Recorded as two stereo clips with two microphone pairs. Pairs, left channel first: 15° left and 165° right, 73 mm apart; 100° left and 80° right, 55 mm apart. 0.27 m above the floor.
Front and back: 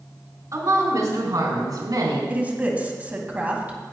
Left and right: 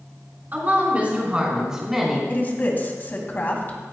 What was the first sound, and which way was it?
A woman speaking, 130° right.